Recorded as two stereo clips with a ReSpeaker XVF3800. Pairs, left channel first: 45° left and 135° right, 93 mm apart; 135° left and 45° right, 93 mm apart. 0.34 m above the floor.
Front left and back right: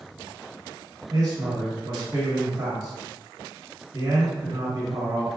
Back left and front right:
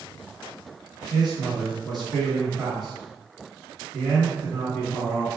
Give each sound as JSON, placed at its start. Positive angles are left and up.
{"t": 1.1, "sound": "a man speaking", "azimuth_deg": -135, "distance_m": 1.4}